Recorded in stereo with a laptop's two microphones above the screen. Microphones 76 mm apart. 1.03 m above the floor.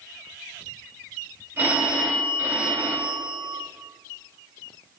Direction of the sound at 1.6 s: 25° right (ahead or behind).